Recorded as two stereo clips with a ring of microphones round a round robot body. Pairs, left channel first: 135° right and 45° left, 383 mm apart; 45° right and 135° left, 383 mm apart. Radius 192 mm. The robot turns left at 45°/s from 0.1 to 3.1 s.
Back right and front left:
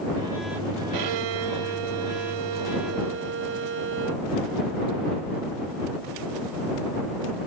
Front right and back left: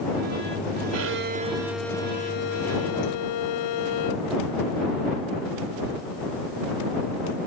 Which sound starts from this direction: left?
A violin, at 0.9 s.